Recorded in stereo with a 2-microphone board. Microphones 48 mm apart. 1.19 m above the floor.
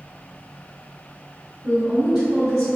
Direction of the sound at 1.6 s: 40° right (ahead or behind).